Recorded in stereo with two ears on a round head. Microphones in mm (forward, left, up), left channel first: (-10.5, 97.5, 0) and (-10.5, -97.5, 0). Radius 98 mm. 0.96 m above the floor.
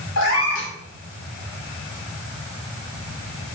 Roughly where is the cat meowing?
Left.